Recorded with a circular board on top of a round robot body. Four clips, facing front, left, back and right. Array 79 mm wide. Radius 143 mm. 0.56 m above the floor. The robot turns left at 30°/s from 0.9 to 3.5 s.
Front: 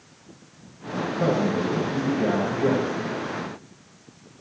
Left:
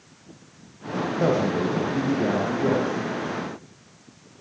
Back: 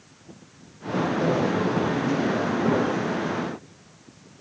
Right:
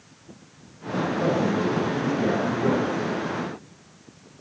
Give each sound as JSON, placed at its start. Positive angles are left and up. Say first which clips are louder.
{"t": 1.2, "sound": "a man speaking", "louder": "left 2 dB, front 3 dB", "azimuth_deg": 80, "distance_m": 4.0}